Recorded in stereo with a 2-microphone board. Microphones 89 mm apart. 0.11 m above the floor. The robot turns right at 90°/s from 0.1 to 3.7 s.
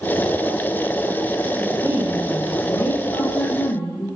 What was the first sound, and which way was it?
A woman speaking, 55° right.